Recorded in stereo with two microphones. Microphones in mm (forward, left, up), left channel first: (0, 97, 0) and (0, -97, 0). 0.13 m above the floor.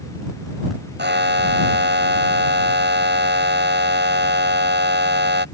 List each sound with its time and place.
1.0 s a buzzer: 60° right (ahead or behind)